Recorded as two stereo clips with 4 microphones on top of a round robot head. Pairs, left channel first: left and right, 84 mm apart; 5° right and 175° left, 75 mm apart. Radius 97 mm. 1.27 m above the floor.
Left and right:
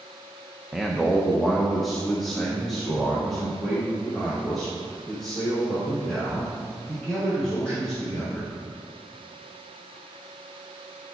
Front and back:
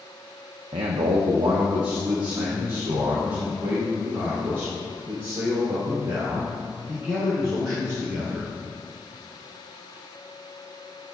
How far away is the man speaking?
About 0.6 m.